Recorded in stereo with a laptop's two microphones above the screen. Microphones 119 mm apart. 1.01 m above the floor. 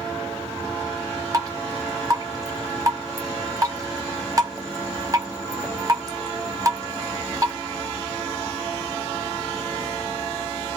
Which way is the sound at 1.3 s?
30° right (ahead or behind).